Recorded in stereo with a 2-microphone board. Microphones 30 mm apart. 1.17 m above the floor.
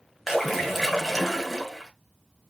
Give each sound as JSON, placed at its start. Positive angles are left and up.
{"t": 0.3, "sound": "a splash", "side_deg": -5, "distance_m": 1.7}